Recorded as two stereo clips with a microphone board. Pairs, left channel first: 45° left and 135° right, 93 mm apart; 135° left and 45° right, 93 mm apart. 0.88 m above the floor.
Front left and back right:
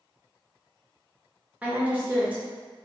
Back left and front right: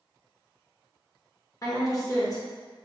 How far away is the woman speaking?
About 1.0 m.